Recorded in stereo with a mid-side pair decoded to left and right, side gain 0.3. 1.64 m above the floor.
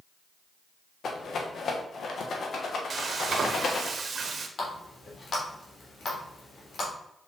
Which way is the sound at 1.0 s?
70° left.